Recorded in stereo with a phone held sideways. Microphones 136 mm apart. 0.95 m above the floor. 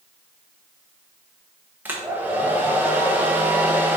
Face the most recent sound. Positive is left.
turn(degrees=-15)  # may be behind; listen again after turning